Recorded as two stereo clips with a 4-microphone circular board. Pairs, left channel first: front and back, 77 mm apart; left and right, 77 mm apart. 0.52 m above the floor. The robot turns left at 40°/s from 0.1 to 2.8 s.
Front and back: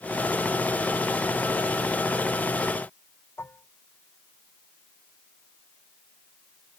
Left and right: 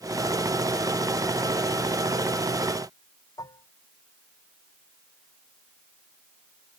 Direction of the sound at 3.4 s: 60° left.